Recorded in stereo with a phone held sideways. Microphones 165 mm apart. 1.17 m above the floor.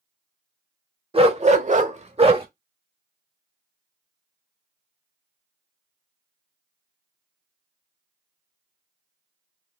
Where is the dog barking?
35° right (ahead or behind), 1.4 m.